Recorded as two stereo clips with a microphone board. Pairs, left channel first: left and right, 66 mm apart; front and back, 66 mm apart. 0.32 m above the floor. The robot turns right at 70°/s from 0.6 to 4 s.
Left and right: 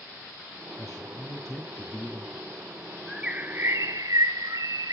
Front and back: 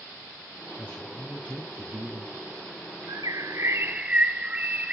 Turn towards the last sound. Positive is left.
turn(degrees=-110)